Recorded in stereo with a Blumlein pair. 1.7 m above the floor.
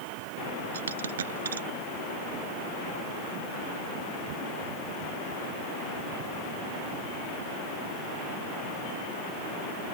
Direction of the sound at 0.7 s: 65° right.